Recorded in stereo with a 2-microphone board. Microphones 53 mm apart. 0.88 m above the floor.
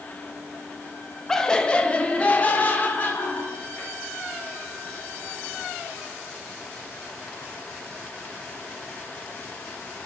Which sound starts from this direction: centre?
Laughter, at 1.3 s.